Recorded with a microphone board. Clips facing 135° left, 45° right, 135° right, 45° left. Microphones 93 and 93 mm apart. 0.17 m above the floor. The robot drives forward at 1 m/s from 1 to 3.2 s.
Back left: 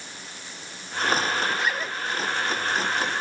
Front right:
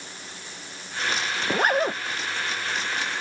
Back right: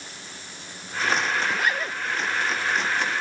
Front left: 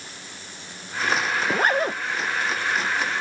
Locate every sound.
1.4 s a zipper: 5° right